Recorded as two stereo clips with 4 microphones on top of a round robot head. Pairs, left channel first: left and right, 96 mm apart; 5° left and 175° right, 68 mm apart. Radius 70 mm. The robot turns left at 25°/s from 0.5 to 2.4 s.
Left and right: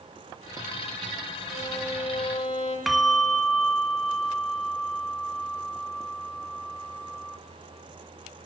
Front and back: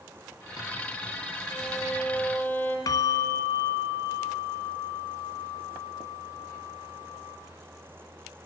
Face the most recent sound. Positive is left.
turn(degrees=0)